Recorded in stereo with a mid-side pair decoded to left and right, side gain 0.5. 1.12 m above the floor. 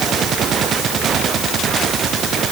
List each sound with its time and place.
Only background noise.